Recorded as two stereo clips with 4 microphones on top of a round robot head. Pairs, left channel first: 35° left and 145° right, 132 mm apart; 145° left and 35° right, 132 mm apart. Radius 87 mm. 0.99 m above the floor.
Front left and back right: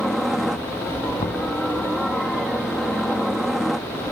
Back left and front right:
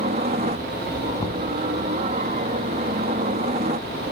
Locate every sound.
0.0 s a helicopter: 55° right
1.2 s knocking: 85° left